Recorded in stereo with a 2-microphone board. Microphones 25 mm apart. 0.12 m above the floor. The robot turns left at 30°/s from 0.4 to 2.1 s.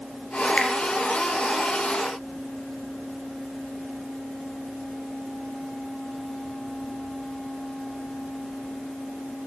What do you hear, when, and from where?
0.6 s a finger snap: 40° left (ahead or behind), 2 m